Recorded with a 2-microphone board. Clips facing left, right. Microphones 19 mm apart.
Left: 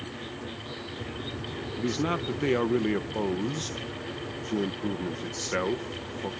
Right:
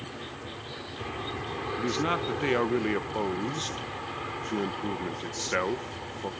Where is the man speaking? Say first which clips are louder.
Even; 15° right (ahead or behind).